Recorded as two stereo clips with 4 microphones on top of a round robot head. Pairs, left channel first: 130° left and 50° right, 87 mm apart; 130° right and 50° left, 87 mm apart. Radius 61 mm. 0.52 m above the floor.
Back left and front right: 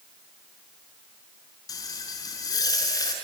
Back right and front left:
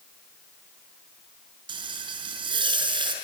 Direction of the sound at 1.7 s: 80° left.